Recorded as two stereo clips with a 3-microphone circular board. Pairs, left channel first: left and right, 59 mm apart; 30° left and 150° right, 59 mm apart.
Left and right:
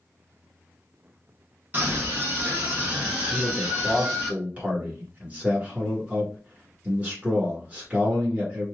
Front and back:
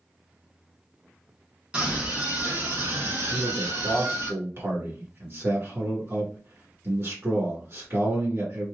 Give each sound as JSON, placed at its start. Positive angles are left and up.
{"t": 1.7, "sound": "a scream", "azimuth_deg": -100, "distance_m": 1.2}
{"t": 3.3, "sound": "a man speaking", "azimuth_deg": -150, "distance_m": 1.8}